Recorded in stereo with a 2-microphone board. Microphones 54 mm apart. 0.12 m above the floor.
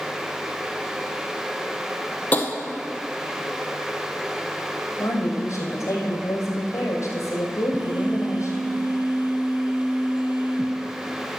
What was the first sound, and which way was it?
Tapping, 30° left (ahead or behind).